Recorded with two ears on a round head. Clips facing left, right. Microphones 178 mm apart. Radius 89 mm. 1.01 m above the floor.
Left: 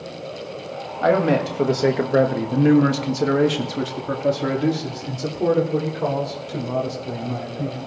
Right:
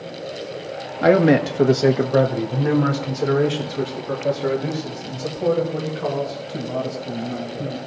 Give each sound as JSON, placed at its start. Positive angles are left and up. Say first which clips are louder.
{"t": 1.0, "sound": "a man speaking", "louder": "right 4 dB", "side_deg": -25, "distance_m": 1.4}